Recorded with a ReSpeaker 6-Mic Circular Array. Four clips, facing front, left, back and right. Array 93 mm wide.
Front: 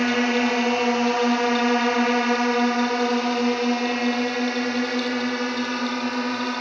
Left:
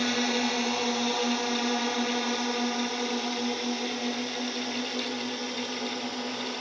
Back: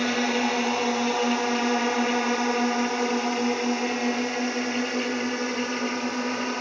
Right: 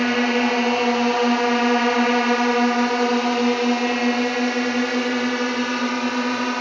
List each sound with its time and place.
0.0 s a drone: 60° right; by 6.6 s 75° right